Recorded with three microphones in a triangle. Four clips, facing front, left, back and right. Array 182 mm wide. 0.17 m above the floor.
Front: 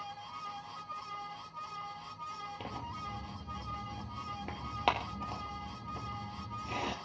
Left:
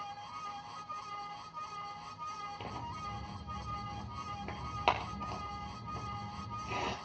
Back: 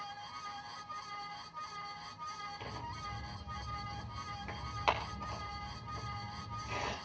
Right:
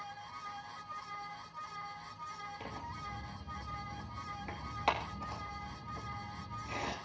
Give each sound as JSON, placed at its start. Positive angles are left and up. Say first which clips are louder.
{"t": 2.6, "sound": "tearing paper", "louder": "left 2 dB, front 2 dB", "azimuth_deg": 35, "distance_m": 2.5}